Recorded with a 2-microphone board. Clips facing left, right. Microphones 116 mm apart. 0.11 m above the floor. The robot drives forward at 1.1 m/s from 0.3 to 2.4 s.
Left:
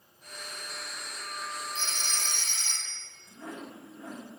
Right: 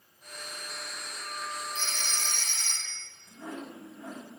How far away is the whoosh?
About 3 m.